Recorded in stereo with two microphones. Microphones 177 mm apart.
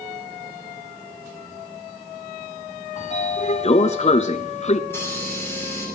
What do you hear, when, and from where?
3.0 s a sliding door: 45° left (ahead or behind), 0.8 m
4.9 s a hiss: 15° left (ahead or behind), 9 m